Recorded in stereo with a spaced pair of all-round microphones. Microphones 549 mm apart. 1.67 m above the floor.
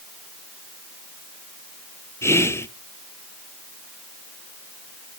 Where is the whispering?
5° left (ahead or behind), 0.5 m.